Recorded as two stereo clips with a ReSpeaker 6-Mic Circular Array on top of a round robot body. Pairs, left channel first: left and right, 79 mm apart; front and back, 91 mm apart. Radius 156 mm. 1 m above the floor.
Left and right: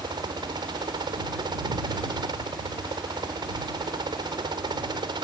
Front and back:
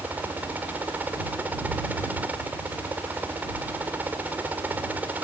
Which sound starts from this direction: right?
A helicopter, at 0.0 s.